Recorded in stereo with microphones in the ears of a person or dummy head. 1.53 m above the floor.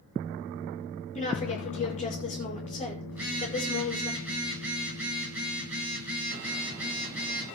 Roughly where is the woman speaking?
Left.